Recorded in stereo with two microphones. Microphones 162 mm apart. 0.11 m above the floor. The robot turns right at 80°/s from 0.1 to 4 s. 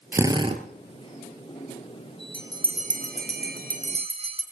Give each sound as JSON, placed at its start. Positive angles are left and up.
{"t": 0.1, "sound": "a drill", "azimuth_deg": -165, "distance_m": 1.5}
{"t": 2.3, "sound": "a bell", "side_deg": -10, "distance_m": 2.5}